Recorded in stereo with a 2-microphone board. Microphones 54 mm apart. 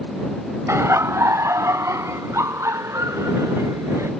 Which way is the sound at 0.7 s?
65° right (ahead or behind).